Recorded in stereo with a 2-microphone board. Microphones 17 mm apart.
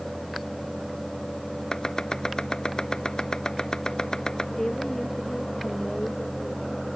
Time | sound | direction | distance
1.7 | chopping | 55° left (ahead or behind) | ?
4.6 | a woman speaking | 50° left (ahead or behind) | ?